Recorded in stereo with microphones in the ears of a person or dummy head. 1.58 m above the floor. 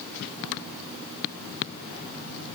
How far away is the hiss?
I don't hear a hiss.